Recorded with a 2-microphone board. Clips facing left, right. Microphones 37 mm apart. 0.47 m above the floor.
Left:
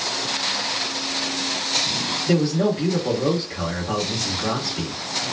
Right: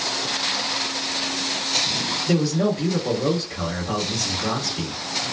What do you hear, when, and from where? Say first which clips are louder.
2.3 s a man speaking: left 1 dB; 25° left (ahead or behind), 1.5 m